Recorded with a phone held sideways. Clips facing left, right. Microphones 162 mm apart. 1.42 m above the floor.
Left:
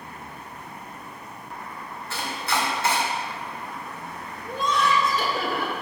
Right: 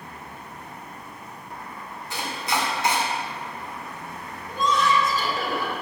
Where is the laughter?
60° left (ahead or behind), 1.6 m.